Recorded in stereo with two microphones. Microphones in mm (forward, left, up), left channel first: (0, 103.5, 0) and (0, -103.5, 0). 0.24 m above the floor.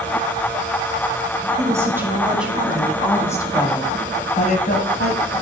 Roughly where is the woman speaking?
Centre.